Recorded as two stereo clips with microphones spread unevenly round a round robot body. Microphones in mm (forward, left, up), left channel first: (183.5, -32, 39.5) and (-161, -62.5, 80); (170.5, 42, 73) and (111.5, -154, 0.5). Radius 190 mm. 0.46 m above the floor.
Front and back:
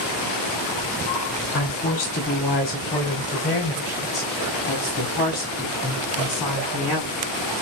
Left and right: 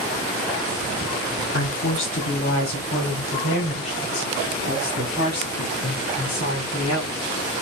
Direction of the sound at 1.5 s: 55° left.